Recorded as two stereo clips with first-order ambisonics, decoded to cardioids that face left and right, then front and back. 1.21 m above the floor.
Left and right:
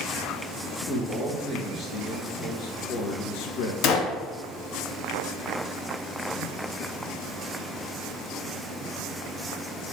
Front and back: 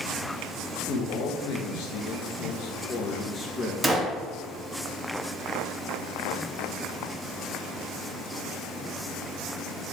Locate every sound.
0.9 s a man speaking: 15° left, 1.8 m; by 3.7 s 75° left, 1.0 m
3.8 s a gunshot: 100° left, 0.9 m